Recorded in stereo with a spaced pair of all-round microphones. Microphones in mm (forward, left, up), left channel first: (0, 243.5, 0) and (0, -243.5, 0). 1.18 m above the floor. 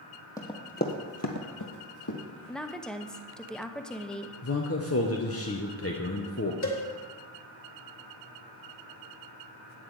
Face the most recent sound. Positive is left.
turn(degrees=35)  # may be behind; listen again after turning